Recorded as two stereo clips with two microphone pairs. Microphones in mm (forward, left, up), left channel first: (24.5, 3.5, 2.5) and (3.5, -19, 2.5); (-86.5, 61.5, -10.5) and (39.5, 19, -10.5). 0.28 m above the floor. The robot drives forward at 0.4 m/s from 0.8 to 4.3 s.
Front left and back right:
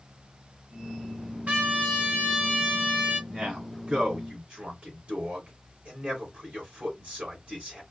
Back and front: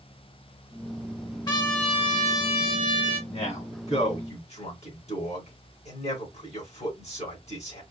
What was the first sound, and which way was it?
A trumpet, 150° right.